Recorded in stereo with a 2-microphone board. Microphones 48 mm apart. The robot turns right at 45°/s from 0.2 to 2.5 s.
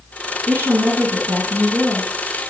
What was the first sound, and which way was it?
A woman speaking, 90° right.